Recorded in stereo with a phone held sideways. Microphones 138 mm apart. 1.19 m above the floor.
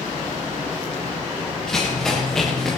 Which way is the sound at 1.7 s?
5° left (ahead or behind).